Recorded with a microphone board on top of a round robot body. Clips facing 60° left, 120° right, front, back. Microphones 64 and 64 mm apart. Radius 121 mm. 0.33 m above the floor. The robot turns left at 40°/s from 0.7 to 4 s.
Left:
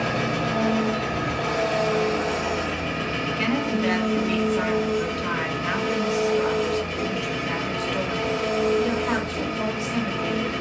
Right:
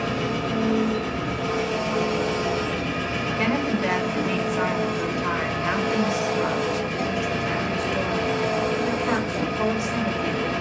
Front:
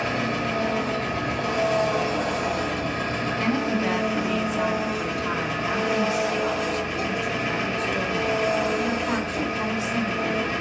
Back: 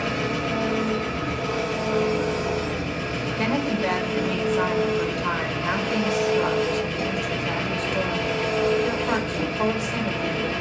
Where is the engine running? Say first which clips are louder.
Left 1 dB, even; 55° left, 1.4 m; by 10.6 s 75° right, 1.4 m.